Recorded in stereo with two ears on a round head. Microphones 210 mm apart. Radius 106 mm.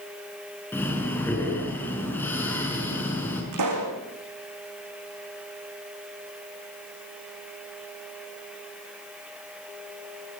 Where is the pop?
90° right, 7.5 m.